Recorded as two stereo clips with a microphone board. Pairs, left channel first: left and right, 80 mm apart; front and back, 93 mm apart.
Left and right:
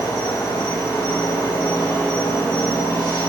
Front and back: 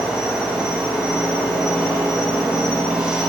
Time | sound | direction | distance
0.0 | an insect | 100° left | 6 m